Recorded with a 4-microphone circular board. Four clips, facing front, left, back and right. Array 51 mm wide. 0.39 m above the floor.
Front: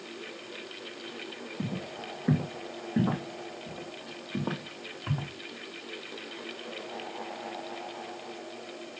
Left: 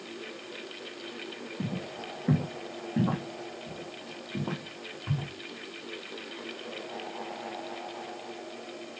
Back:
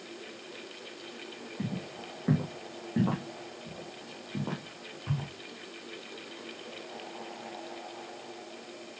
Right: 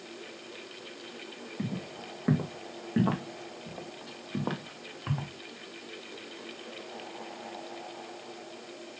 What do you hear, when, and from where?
1.6 s footsteps: 100° right, 4.5 m; by 5.3 s 55° right, 2.5 m